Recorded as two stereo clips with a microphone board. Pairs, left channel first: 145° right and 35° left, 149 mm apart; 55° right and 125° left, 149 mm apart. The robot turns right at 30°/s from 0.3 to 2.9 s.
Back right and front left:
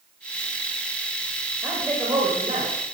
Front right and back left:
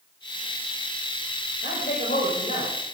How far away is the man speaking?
About 9.5 m.